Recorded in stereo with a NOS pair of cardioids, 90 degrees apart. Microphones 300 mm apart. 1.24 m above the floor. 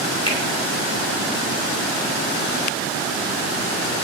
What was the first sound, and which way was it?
A finger snap, 15° left.